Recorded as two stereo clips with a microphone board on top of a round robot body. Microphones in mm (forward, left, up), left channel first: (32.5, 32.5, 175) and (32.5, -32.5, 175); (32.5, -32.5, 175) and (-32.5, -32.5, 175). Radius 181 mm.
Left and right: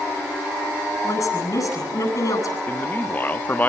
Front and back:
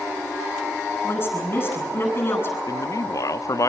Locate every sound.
1.0 s a woman speaking: 55° left, 9.5 m
2.7 s a man speaking: 30° left, 1.3 m